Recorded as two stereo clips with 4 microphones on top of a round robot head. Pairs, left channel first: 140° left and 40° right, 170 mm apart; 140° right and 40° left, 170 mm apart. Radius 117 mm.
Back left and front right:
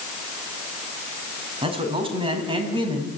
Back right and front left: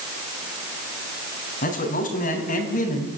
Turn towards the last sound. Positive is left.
turn(degrees=-100)